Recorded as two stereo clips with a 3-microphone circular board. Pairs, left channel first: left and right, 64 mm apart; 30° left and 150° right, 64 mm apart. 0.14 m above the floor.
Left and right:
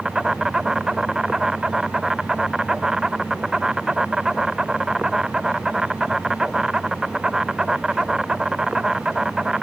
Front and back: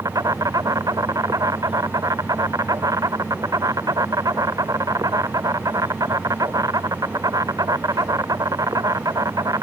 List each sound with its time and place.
0.0 s an insect: 170° right